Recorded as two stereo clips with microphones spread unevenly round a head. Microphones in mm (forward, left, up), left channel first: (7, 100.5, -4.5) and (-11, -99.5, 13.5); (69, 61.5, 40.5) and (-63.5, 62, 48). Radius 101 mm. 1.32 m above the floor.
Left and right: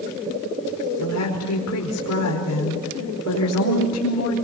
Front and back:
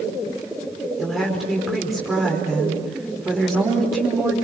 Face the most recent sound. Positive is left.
turn(degrees=90)